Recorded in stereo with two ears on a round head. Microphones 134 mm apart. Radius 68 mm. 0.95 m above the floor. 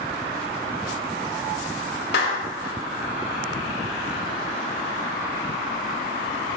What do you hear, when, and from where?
2.1 s a clap: 75° left (ahead or behind), 1.6 m